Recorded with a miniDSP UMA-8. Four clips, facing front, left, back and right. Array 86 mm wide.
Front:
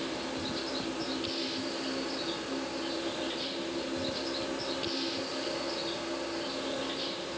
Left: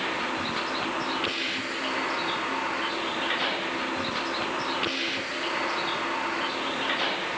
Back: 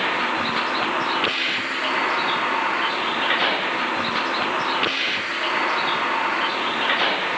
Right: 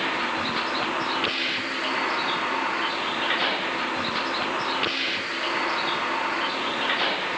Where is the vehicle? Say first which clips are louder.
Right 3 dB, back 12 dB; 170° right.